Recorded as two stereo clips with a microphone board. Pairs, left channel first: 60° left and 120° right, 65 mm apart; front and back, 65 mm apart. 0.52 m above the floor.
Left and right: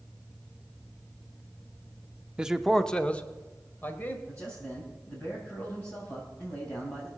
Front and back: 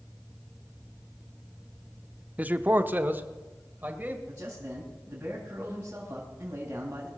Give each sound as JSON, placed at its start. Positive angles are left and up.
{"t": 2.4, "sound": "a man speaking", "azimuth_deg": -170, "distance_m": 0.7}
{"t": 4.3, "sound": "a man speaking", "azimuth_deg": 110, "distance_m": 3.5}